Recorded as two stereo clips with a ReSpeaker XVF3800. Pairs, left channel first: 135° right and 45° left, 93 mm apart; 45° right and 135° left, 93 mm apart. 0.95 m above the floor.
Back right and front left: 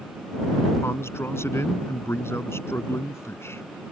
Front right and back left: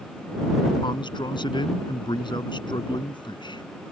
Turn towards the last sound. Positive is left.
turn(degrees=-75)